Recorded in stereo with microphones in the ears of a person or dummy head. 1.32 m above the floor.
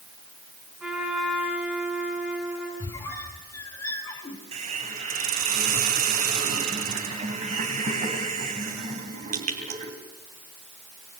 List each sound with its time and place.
0.8 s a trumpet: 5° right (ahead or behind), 7 m
2.8 s a squeak: 20° left (ahead or behind), 4.5 m
4.5 s a hiss: 40° right (ahead or behind), 3 m